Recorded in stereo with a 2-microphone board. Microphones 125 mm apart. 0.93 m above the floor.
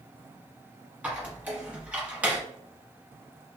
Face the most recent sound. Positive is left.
turn(degrees=-15)  # may be behind; listen again after turning